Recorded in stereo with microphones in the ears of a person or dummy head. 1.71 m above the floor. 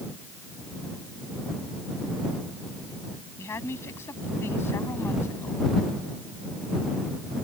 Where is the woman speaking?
15° left (ahead or behind).